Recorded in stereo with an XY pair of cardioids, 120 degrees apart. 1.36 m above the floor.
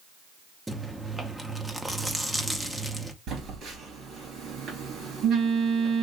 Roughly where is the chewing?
Ahead.